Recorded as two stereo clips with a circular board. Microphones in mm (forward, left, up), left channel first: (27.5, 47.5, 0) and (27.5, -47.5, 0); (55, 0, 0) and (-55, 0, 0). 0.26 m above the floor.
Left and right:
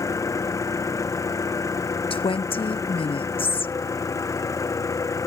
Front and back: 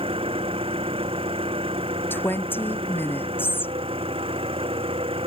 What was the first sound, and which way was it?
An engine running, 145° left.